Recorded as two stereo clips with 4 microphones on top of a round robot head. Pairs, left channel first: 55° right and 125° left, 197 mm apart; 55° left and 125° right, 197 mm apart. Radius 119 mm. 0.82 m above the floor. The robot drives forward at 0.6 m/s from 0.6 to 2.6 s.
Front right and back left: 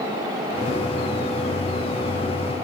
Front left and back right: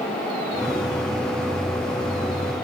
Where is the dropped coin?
No dropped coin in this recording.